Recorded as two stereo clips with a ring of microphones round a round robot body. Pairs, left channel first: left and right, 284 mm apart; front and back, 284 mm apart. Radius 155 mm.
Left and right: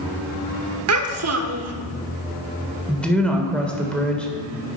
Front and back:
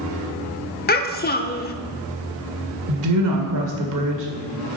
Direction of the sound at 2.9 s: 175° left.